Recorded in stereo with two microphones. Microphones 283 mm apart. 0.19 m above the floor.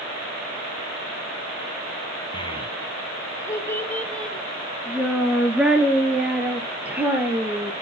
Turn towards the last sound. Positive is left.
turn(degrees=-5)  # may be behind; listen again after turning